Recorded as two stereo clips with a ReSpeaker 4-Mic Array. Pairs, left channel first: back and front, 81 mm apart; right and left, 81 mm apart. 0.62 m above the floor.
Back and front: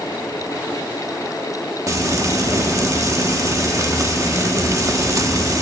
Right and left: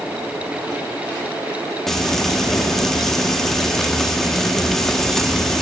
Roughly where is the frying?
Ahead.